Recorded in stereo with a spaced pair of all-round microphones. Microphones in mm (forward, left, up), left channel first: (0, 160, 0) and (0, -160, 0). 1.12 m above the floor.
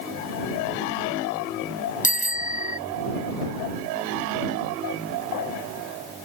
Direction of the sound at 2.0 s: 25° left (ahead or behind).